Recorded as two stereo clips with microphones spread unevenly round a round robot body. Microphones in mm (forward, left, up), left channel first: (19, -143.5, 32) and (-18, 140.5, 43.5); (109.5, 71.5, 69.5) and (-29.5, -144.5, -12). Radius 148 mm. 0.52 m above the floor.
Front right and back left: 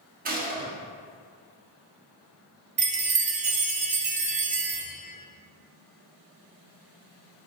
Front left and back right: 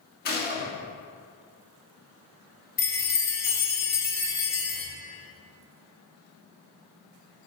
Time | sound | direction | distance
0.2 | a gunshot | 110° left | 1.3 m
2.8 | a chime | 155° left | 0.7 m